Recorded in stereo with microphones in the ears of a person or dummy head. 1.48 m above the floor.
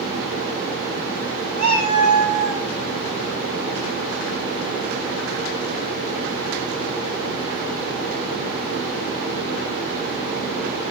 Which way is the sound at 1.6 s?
35° left (ahead or behind).